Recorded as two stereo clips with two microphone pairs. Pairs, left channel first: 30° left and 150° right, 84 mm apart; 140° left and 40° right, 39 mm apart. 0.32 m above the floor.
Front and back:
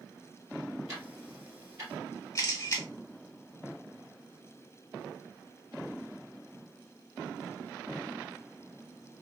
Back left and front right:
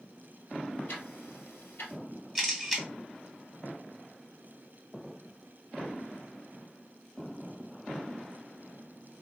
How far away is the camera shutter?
About 1.2 m.